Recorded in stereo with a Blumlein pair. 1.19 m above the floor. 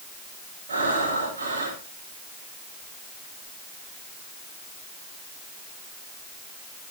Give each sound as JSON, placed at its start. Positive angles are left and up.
{"t": 0.7, "sound": "breathing", "azimuth_deg": -65, "distance_m": 7.0}